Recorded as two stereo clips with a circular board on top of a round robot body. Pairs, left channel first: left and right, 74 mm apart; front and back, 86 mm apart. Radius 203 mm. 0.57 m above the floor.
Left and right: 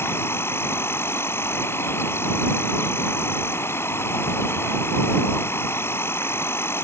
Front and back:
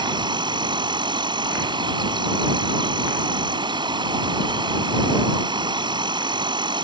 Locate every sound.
0.0 s an insect: 150° left